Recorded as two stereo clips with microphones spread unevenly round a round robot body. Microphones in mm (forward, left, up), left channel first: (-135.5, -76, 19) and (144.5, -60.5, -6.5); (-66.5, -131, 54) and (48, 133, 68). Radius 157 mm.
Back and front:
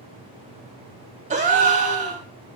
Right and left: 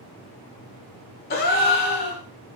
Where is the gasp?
60° right, 0.5 m.